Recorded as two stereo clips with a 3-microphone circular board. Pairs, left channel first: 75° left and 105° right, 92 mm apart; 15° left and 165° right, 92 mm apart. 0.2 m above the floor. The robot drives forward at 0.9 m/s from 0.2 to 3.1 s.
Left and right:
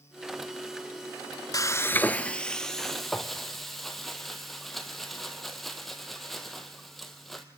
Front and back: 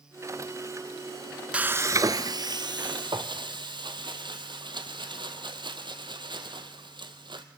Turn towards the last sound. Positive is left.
turn(degrees=165)